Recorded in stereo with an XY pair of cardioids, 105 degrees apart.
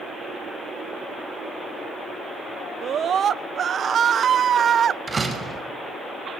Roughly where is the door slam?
Ahead right.